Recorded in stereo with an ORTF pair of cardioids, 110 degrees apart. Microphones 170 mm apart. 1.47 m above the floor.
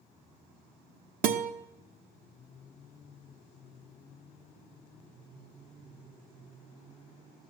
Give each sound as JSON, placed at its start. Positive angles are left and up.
{"t": 1.2, "sound": "a guitar", "azimuth_deg": -60, "distance_m": 1.2}